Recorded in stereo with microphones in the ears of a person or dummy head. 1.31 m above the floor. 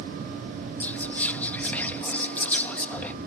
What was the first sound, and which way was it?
Whispering, 5° left (ahead or behind).